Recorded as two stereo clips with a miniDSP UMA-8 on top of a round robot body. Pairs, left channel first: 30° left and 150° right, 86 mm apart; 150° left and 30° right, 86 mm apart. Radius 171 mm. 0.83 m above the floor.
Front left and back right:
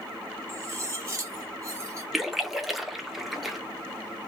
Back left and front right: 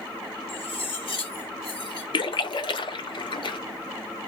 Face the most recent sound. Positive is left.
turn(degrees=120)